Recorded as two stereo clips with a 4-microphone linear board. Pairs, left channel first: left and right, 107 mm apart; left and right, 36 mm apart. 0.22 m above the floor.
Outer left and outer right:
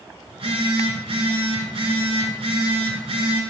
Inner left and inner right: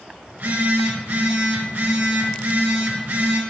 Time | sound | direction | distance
0.3 | a phone buzzing | 60° right (ahead or behind) | 3.5 m